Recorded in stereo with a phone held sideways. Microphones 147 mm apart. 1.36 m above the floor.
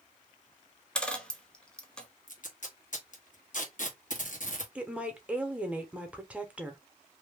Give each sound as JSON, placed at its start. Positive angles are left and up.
{"t": 0.9, "sound": "a dropped coin", "side_deg": 5, "distance_m": 0.7}
{"t": 2.3, "sound": "tape being pulled", "side_deg": 60, "distance_m": 1.1}
{"t": 4.8, "sound": "a woman speaking", "side_deg": -10, "distance_m": 0.9}